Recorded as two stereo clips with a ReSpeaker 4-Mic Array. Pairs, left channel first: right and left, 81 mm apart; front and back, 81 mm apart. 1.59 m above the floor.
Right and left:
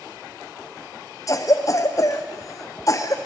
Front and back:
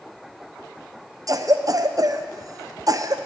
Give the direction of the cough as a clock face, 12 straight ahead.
5 o'clock.